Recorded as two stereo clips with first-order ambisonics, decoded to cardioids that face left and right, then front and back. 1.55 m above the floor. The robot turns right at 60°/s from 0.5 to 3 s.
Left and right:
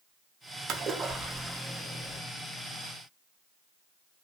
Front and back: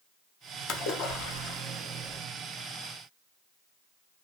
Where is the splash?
40° right, 0.6 m; by 2.2 s 50° left, 0.6 m.